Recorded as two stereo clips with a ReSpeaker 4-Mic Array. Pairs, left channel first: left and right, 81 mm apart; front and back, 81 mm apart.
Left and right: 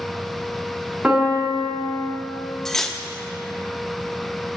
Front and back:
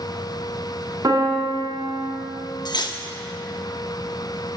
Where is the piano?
165° right, 1.6 m.